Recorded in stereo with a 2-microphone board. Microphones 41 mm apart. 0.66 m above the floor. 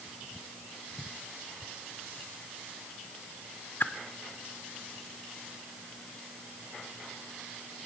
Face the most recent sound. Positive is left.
turn(degrees=55)  # may be behind; listen again after turning